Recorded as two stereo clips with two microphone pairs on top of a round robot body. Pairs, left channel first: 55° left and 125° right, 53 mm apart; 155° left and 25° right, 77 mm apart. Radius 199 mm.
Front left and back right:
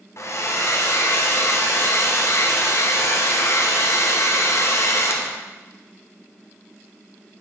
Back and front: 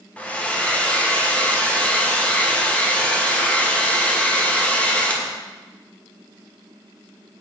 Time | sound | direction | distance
0.2 | a hair dryer | 75° left | 1.4 m